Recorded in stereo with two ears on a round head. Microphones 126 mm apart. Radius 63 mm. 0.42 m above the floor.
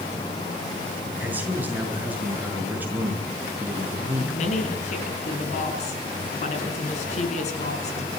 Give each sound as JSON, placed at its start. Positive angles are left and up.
{"t": 1.2, "sound": "a man speaking", "side_deg": -10, "distance_m": 6.0}
{"t": 4.2, "sound": "a woman speaking", "side_deg": 50, "distance_m": 5.5}